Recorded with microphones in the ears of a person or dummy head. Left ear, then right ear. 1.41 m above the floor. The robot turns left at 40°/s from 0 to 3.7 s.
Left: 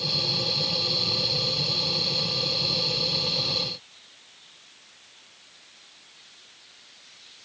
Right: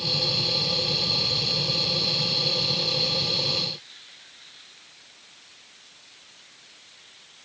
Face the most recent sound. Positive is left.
No sound to turn to.